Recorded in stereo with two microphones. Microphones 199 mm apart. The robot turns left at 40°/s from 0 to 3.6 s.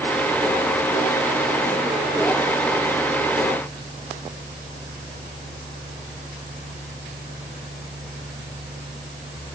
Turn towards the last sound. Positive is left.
No sound to turn to.